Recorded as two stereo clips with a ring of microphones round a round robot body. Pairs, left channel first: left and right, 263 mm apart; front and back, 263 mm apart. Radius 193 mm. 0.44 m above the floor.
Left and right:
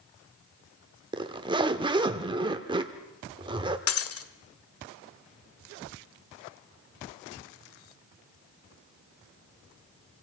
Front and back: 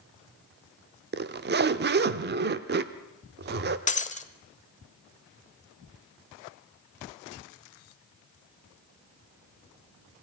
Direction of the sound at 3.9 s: 65° left.